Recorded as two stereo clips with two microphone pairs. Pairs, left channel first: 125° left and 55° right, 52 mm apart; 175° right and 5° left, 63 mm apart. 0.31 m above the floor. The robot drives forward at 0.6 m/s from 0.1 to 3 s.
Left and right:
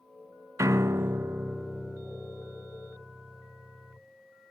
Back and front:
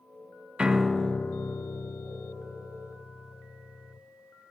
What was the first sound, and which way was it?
A piano, 70° right.